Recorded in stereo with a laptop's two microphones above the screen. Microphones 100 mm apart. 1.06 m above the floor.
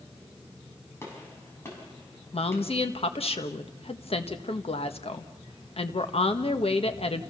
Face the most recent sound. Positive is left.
turn(degrees=65)  # may be behind; listen again after turning